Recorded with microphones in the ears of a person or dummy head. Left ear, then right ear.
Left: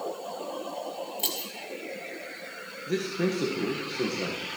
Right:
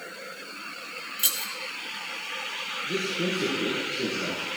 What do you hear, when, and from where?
1.2 s keys jangling: 5° left (ahead or behind), 1.7 m
2.9 s a man speaking: 30° left (ahead or behind), 2.0 m